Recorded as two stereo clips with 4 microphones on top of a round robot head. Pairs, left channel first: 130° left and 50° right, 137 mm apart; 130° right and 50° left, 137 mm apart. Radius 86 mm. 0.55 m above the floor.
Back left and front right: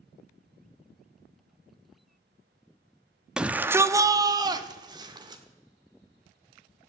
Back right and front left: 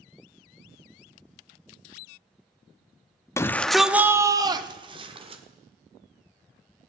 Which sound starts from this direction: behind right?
A shout, at 3.4 s.